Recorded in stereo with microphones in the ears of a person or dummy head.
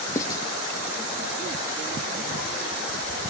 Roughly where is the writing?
Centre.